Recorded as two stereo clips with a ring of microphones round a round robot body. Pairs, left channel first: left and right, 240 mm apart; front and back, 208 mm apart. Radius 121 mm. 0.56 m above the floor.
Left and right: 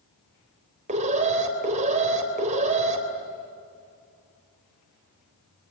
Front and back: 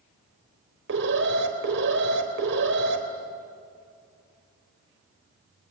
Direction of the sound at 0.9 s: 150° right.